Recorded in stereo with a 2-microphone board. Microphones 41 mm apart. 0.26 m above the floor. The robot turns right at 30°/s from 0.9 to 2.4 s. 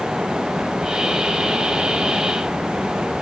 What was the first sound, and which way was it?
Only background noise.